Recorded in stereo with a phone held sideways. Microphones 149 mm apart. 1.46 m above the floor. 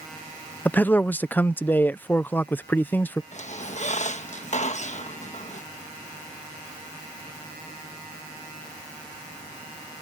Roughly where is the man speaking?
Centre.